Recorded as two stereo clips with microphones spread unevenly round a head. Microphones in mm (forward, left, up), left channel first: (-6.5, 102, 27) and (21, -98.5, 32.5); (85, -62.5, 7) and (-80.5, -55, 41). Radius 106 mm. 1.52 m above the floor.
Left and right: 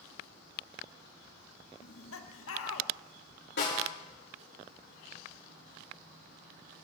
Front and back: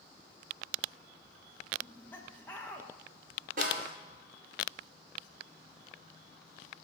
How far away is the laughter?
About 1.6 m.